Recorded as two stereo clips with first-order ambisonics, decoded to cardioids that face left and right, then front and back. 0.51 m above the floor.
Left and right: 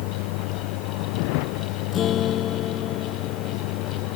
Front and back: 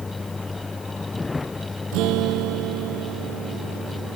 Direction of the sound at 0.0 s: 80° left.